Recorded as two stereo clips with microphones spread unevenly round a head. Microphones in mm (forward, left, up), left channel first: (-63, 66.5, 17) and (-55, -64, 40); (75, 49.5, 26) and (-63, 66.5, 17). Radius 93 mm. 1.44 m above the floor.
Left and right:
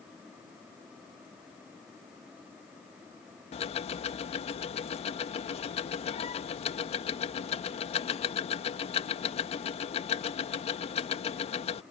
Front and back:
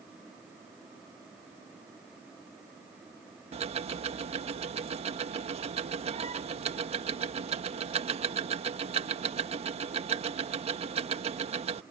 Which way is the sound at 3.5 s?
135° left.